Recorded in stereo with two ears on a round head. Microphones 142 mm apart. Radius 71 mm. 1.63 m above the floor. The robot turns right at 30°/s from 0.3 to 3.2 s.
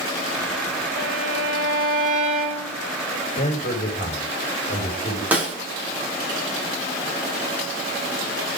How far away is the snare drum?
About 4.5 m.